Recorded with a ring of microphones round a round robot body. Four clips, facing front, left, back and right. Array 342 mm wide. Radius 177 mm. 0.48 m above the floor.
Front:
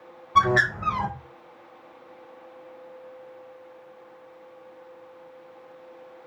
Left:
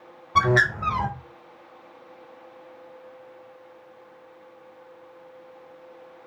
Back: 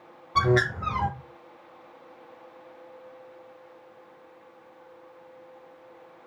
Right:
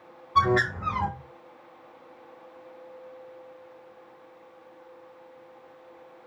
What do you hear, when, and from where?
0.3 s a bird: 90° left, 1.8 m